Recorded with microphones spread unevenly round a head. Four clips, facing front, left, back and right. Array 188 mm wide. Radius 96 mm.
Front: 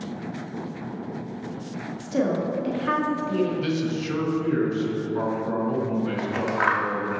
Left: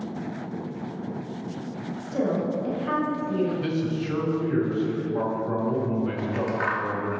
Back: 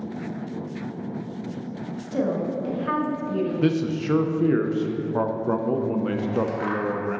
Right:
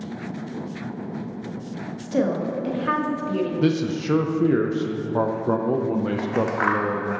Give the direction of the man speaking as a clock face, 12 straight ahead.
4 o'clock.